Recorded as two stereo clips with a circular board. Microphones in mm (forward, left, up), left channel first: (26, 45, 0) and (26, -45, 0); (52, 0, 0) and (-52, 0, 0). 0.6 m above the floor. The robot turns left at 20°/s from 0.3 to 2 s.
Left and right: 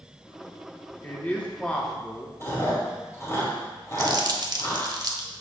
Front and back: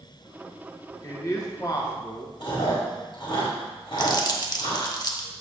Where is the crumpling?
50° right, 0.8 m.